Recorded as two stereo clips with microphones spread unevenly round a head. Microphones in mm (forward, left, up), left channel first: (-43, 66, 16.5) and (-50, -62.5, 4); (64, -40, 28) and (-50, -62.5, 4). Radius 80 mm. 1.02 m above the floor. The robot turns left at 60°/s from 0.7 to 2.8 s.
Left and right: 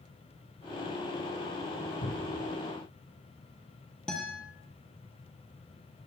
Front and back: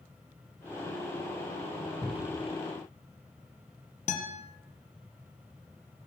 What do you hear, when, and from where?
2.0 s a cupboard door: 90° left, 2.5 m; by 2.4 s 65° left, 2.5 m
4.1 s a guitar: straight ahead, 6.5 m